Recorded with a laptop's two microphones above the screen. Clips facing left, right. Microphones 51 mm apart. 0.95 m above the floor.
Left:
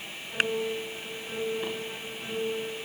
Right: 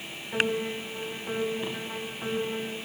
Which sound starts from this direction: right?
A piano, at 0.3 s.